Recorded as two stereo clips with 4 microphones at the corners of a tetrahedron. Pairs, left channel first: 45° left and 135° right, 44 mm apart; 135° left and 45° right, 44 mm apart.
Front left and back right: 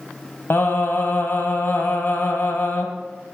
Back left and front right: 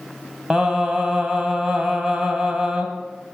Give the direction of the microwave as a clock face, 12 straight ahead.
No microwave in this recording.